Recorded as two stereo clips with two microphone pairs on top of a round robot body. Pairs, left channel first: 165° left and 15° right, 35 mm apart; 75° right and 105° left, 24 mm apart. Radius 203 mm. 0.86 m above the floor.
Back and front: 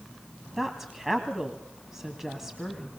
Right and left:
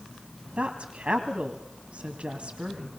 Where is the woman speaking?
65° left, 1.9 m.